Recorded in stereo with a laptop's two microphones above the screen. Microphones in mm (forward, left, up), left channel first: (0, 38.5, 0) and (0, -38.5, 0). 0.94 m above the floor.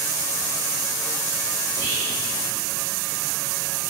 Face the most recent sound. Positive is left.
turn(degrees=40)  # may be behind; listen again after turning